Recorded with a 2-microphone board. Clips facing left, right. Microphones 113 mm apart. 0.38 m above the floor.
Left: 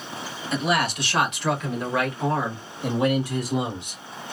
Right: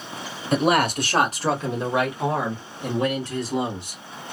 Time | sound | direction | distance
0.5 | a man speaking | 55° right (ahead or behind) | 1.2 m